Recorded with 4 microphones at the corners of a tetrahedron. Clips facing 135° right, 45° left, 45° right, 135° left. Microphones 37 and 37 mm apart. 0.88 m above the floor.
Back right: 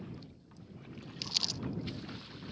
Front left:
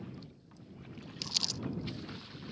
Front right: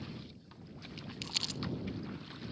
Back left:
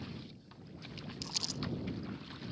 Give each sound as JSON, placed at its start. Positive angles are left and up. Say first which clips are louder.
{"t": 1.2, "sound": "crumpling", "louder": "even, front right 4 dB", "azimuth_deg": -55}